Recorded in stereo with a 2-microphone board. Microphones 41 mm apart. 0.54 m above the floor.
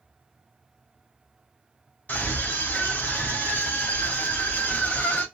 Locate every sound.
2.1 s a scream: 50° left (ahead or behind), 2.5 m